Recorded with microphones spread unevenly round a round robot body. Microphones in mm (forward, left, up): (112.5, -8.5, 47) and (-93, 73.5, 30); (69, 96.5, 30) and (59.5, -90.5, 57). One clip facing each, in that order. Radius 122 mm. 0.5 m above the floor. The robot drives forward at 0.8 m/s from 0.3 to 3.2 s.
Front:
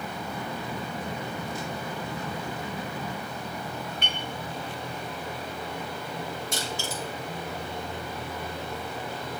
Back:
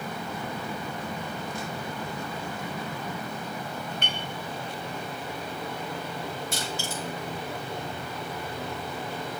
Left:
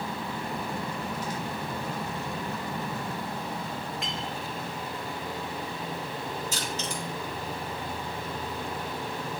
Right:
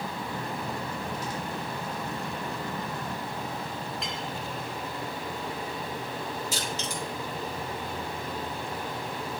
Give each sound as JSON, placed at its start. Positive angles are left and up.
{"t": 4.0, "sound": "a clink", "azimuth_deg": -155, "distance_m": 2.0}
{"t": 6.5, "sound": "crushing", "azimuth_deg": -120, "distance_m": 4.5}